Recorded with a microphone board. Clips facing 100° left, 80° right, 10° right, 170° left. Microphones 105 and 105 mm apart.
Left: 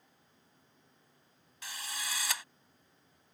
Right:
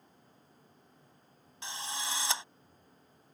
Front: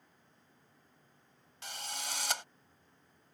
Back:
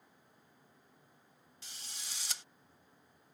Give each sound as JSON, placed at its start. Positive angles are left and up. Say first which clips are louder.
{"t": 1.6, "sound": "a drill", "louder": "right 4 dB, front 12 dB", "azimuth_deg": -15}